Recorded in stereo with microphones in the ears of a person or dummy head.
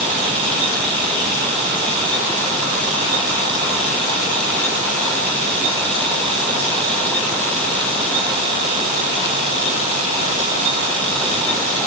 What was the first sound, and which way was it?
Only background noise.